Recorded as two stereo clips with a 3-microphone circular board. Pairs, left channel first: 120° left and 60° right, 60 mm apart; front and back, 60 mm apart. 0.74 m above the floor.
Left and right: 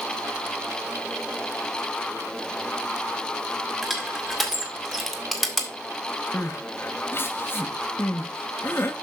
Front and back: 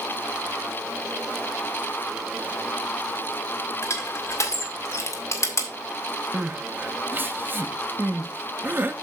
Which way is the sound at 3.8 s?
30° left.